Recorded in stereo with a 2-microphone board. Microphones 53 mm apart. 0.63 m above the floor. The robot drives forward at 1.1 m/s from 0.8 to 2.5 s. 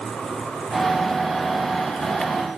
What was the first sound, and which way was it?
Only background noise.